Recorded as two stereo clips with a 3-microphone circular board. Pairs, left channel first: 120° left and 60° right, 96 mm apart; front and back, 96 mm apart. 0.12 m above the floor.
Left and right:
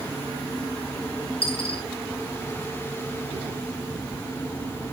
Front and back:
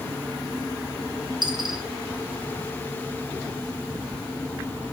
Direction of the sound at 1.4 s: 140° left.